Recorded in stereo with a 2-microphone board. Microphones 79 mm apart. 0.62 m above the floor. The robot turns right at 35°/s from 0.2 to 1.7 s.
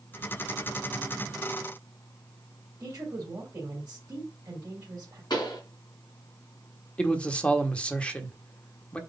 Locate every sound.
2.8 s a woman speaking: 50° right (ahead or behind), 3 m
5.3 s a pop: 70° left (ahead or behind), 3 m
7.0 s a man speaking: 15° left (ahead or behind), 1.3 m